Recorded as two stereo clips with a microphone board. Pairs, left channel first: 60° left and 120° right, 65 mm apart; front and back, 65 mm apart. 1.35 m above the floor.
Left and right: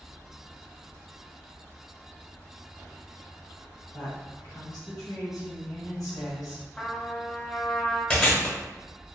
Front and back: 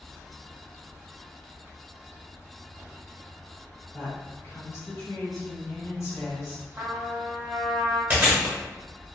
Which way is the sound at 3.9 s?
40° left.